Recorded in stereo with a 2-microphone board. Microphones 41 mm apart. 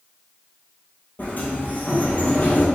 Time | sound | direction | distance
1.2 | a sliding door | 50° left (ahead or behind) | 1.6 m